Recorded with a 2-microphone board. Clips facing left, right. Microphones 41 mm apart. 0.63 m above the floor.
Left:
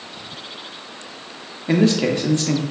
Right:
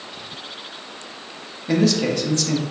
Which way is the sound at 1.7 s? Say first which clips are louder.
Left 2 dB; 25° left (ahead or behind).